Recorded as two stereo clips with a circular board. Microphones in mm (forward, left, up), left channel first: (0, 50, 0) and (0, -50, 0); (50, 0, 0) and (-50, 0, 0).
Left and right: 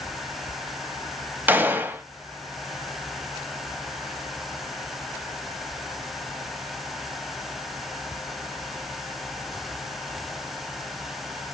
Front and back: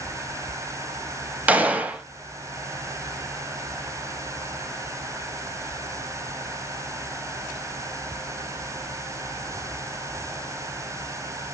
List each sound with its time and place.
1.5 s a gunshot: 130° right, 0.5 m